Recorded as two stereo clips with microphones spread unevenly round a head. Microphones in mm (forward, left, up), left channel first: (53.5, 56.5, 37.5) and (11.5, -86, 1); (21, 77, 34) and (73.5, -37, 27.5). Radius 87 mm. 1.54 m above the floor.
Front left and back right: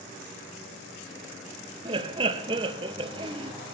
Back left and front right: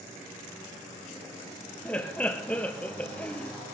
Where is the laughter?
160° right, 0.8 m.